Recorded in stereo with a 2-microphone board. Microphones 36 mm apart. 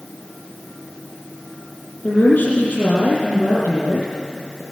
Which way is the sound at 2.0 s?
55° left (ahead or behind).